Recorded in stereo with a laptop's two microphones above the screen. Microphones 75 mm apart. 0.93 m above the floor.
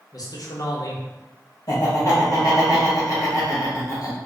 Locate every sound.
0.1 s a man speaking: 55° left (ahead or behind), 0.9 m
1.7 s laughter: 50° left (ahead or behind), 1.5 m